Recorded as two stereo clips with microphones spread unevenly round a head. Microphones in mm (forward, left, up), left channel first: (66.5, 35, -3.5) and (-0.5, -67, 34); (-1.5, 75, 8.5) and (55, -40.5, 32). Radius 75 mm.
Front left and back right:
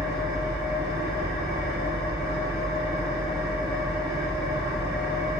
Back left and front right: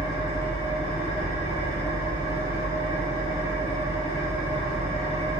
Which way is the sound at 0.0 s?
70° right.